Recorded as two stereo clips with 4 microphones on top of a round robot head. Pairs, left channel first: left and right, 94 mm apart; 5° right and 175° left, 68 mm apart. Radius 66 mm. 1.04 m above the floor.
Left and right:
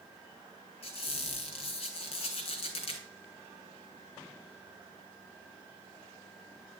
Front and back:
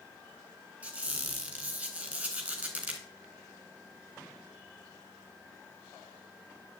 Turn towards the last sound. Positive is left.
turn(degrees=100)